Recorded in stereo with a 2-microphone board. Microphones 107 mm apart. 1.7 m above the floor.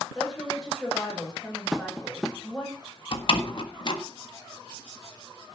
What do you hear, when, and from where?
0.1 s a woman speaking: centre (ahead or behind), 10 m
1.7 s tapping: 5° right (ahead or behind), 1.0 m
3.1 s a door slam: 50° left (ahead or behind), 1.5 m